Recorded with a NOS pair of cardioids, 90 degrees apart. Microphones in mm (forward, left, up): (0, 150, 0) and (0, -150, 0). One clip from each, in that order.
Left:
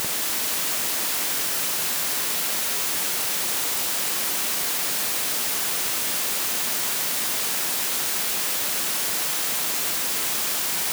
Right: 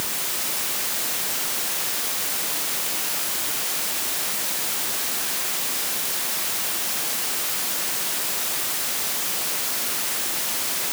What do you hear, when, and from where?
Only background noise.